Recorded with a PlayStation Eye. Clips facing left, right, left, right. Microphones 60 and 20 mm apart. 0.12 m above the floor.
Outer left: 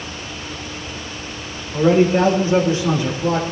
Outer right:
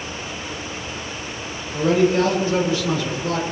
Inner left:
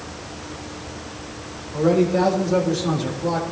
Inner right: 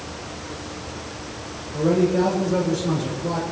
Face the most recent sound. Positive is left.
turn(degrees=25)  # may be behind; listen again after turning